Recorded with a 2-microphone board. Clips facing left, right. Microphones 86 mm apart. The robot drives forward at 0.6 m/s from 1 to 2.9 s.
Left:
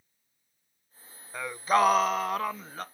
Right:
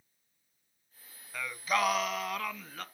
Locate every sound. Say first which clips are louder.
1.3 s singing: left 7 dB; 30° left (ahead or behind), 0.6 m; by 2.9 s 25° left (ahead or behind), 0.7 m